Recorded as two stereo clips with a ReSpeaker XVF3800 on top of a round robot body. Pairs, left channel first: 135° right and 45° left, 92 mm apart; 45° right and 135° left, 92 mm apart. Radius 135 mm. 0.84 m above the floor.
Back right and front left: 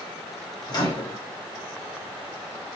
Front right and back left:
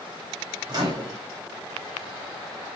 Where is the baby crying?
No baby crying in this recording.